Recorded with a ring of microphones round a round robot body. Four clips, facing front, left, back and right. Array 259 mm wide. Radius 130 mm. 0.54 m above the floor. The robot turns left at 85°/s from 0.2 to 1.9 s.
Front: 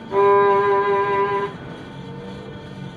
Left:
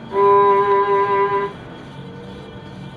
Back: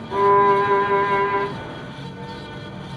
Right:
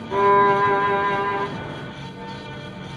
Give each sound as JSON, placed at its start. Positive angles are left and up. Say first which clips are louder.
{"t": 0.1, "sound": "a violin", "louder": "left 4 dB, front 1 dB", "azimuth_deg": -65, "distance_m": 1.3}